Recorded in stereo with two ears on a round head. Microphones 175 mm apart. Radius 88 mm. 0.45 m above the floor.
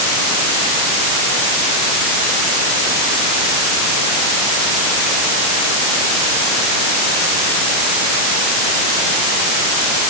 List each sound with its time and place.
Only background noise.